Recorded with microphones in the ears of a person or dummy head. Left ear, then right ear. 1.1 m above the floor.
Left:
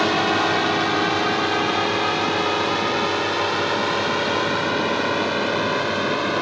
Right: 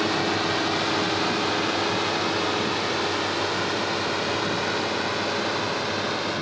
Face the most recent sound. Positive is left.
turn(degrees=30)  # may be behind; listen again after turning